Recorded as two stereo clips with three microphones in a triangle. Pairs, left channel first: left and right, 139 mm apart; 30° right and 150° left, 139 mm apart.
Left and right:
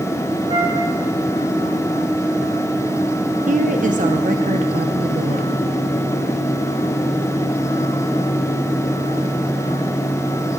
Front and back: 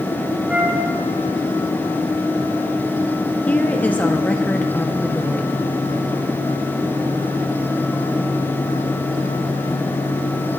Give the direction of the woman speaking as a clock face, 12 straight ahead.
4 o'clock.